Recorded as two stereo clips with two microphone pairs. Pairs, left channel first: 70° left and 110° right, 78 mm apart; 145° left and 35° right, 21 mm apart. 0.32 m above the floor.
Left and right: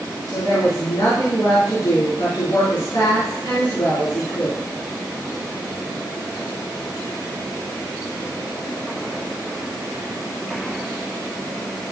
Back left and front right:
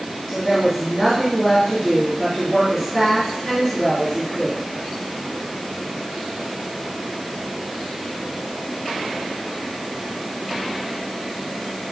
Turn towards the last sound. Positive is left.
turn(degrees=40)